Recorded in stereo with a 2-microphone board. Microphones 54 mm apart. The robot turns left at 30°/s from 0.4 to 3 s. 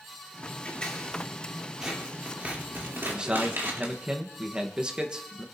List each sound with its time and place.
0.7 s scissors: 25° left (ahead or behind), 3 m; by 3.9 s 45° right (ahead or behind), 3 m
3.1 s a man speaking: 15° right (ahead or behind), 0.9 m